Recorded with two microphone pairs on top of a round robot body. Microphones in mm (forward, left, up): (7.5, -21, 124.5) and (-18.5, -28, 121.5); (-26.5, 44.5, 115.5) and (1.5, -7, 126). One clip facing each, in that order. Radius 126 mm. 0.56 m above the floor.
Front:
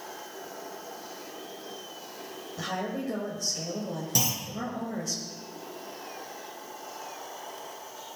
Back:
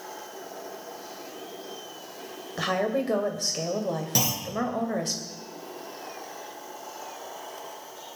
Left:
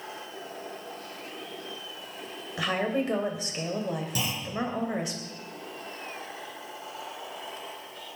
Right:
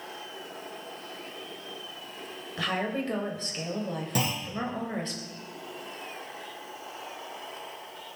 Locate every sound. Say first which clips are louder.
2.6 s a woman speaking: back 7 dB, left 2 dB; 165° right, 3.5 m
4.2 s a clunk: front 1 dB, right 2 dB; 100° right, 5.5 m